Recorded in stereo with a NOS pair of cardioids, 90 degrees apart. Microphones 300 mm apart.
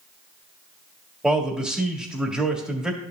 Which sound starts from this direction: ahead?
A man speaking, at 1.2 s.